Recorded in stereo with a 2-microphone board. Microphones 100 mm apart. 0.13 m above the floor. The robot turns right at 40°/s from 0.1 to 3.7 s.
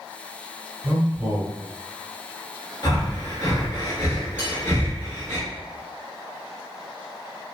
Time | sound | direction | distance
0.8 | a man speaking | 20° right (ahead or behind) | 1.1 m
2.8 | breathing | 50° left (ahead or behind) | 1.1 m
4.4 | cutlery clinking | 15° left (ahead or behind) | 1.4 m